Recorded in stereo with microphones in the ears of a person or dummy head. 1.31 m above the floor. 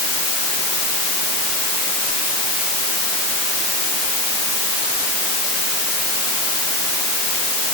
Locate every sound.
Only background noise.